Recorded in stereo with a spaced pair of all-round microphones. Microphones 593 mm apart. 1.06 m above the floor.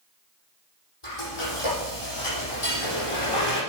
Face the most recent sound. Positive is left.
turn(degrees=60)  # may be behind; listen again after turning